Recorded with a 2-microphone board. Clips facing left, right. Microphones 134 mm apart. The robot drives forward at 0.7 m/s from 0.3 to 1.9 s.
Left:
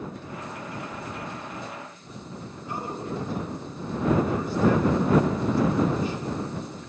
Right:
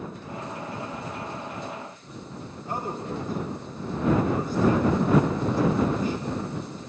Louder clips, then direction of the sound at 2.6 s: Right 2 dB; 45° right (ahead or behind).